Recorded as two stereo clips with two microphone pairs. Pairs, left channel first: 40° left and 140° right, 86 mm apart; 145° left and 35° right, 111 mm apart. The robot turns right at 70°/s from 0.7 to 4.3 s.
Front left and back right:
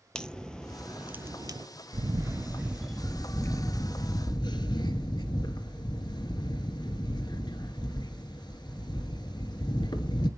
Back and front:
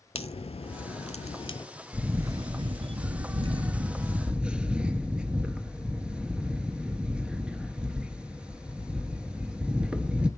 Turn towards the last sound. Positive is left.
turn(degrees=50)